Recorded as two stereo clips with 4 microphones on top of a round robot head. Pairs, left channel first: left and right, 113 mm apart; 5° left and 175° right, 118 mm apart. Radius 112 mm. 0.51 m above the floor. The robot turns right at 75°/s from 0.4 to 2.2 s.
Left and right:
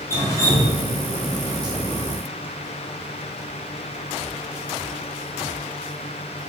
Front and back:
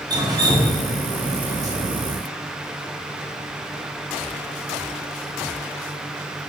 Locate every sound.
0.1 s dripping: 145° left, 1.2 m; by 1.7 s 115° right, 1.2 m